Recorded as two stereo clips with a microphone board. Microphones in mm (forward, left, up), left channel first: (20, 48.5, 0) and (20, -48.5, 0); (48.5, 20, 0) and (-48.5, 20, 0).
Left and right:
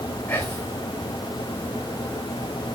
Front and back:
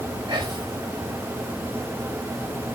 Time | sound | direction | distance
0.3 | whispering | 155° left | 1.6 m